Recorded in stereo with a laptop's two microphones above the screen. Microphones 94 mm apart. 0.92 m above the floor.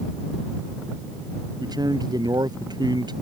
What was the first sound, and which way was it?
A man speaking, 45° right (ahead or behind).